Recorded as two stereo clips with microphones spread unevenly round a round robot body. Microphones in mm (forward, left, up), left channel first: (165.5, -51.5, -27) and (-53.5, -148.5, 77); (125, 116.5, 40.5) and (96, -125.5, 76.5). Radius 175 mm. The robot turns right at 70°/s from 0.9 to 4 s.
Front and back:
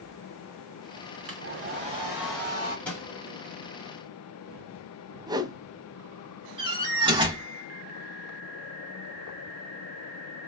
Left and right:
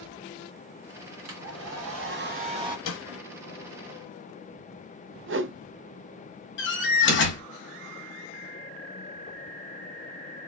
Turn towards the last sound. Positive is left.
turn(degrees=120)